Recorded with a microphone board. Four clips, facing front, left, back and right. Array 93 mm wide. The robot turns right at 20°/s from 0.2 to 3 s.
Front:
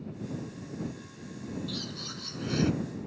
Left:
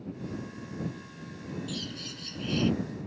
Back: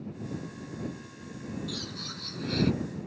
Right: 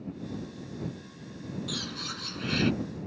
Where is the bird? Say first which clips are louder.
Right 2 dB, even; 95° right; by 2.7 s 70° right.